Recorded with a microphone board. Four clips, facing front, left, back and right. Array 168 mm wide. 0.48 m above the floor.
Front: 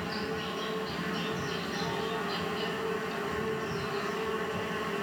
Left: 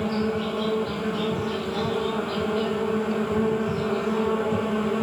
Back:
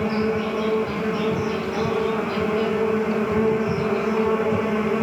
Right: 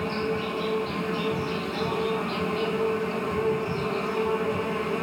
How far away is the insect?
About 1.9 m.